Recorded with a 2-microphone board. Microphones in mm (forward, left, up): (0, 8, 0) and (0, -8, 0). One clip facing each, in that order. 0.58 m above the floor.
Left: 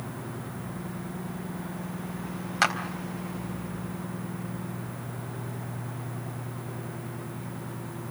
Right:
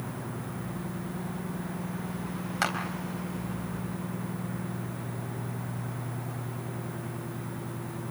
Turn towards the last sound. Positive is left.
turn(degrees=15)  # may be behind; listen again after turning